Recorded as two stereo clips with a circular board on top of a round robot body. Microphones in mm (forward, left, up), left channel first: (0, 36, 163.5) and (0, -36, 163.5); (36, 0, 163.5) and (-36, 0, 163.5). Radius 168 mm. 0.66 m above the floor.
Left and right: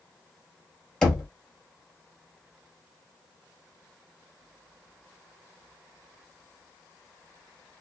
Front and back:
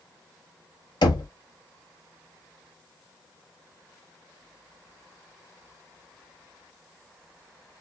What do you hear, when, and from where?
1.0 s knocking: 10° left, 1.3 m